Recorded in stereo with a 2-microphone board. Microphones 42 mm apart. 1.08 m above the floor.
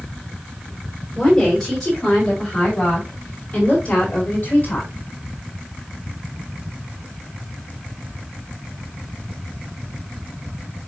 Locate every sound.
1.1 s a woman speaking: 10° left (ahead or behind), 5.5 m; by 4.9 s 40° left (ahead or behind), 4 m